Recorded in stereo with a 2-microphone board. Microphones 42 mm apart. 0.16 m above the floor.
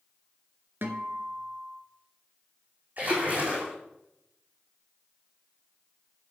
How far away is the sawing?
No sawing in this recording.